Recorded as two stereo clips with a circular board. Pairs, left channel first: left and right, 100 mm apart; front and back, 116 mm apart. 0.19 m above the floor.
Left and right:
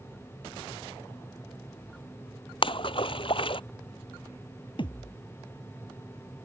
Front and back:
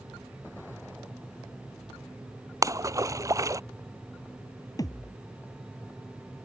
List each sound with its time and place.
2.6 s a splash: 120° left
4.8 s a thud: 60° left